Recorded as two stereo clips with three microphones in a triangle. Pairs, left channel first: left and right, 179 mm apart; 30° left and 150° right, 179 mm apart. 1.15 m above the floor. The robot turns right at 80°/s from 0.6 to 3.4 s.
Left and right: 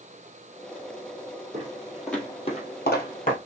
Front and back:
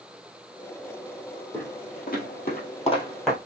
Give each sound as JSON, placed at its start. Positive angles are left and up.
{"t": 1.5, "sound": "footsteps", "azimuth_deg": -55, "distance_m": 2.0}